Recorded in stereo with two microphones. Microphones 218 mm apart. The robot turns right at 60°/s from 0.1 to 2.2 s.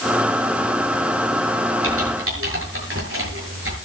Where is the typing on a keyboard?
85° right, 8 m; by 3.8 s 75° right (ahead or behind), 8 m.